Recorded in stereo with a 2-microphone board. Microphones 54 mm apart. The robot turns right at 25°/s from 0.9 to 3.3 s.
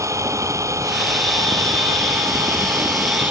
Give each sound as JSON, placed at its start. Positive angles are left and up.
{"t": 0.0, "sound": "an engine running", "azimuth_deg": -100}